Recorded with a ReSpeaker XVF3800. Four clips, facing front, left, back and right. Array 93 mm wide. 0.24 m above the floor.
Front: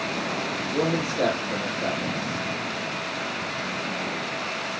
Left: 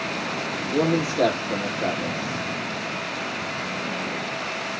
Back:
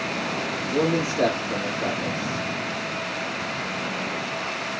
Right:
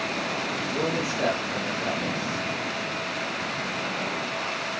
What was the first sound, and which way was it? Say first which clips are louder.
A man speaking: left 8 dB, back 3 dB; 100° left.